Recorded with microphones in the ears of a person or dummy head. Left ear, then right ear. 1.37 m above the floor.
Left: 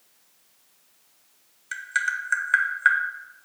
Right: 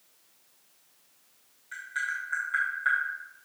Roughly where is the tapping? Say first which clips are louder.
Left 6 dB; left.